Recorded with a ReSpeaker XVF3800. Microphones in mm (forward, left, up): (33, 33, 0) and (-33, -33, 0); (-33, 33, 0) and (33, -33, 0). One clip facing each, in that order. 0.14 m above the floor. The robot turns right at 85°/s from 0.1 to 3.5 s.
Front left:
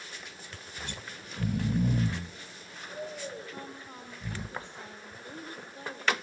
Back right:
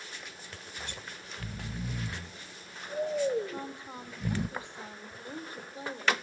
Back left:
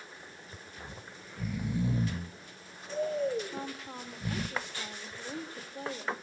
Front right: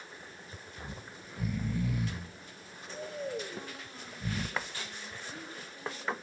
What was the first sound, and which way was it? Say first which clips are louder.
Snoring: front left 2 dB, front right 2 dB; 15° right.